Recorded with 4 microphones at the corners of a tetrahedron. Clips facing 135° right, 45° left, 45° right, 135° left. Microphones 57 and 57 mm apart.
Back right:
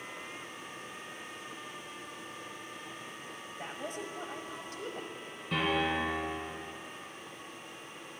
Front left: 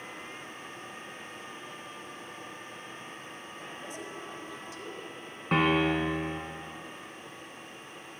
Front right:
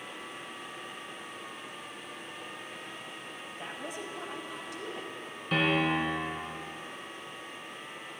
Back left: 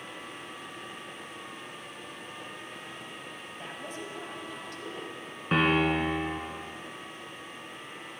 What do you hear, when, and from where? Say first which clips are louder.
3.5 s a woman speaking: back right 4 dB, front right 1 dB; 125° right, 1.6 m
5.5 s a piano: front left 5 dB, back left 2 dB; 80° left, 1.9 m